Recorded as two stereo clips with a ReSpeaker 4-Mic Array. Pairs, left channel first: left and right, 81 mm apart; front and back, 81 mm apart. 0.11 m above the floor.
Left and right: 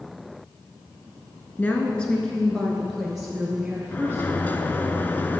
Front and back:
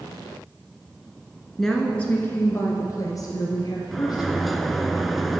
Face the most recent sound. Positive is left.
turn(degrees=90)